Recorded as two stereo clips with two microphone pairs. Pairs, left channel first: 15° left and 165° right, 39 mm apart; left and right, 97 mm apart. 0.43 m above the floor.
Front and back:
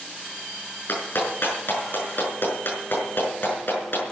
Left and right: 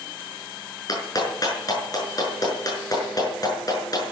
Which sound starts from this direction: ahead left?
A clap, at 0.9 s.